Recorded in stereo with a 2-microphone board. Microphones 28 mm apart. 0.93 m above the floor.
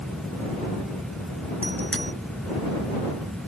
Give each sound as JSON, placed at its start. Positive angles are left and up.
{"t": 1.6, "sound": "a bicycle bell", "side_deg": 40}